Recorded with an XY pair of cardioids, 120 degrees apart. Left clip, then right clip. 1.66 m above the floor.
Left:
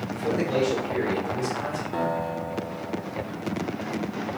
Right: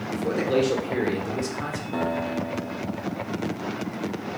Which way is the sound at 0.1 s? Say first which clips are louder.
Right 2 dB; 30° right.